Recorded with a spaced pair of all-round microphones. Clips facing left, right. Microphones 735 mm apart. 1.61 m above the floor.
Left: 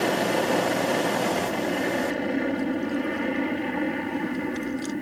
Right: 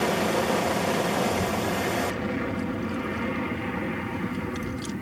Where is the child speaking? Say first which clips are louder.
Even; 70° right (ahead or behind).